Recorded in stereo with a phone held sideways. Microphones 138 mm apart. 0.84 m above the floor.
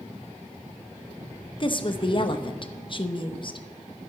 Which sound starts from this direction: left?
A woman speaking, at 1.6 s.